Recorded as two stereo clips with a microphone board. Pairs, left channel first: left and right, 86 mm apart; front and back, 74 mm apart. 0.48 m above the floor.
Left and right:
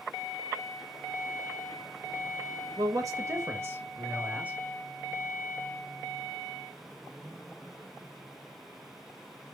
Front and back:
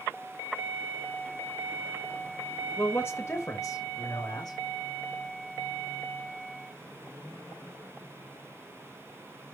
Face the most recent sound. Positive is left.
turn(degrees=-15)